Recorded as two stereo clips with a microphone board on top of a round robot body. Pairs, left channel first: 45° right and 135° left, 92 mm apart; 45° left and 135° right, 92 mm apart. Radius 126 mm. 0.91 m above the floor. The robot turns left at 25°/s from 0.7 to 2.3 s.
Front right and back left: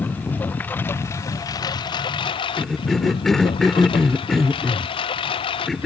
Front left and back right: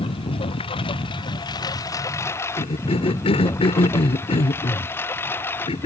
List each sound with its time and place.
0.0 s a lawn mower: 25° left; by 5.9 s 20° right
2.6 s a cough: 40° left